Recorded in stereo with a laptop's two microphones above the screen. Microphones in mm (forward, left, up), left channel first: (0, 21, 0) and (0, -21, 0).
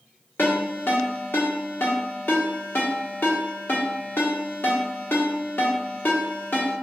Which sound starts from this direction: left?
A ringtone, at 0.4 s.